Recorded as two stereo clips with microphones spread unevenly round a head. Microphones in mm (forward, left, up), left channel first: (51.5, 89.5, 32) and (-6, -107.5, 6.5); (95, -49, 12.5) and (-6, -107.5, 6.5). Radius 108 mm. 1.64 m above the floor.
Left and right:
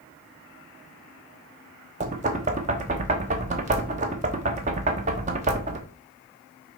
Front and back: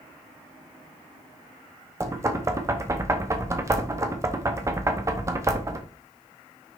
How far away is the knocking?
About 0.8 m.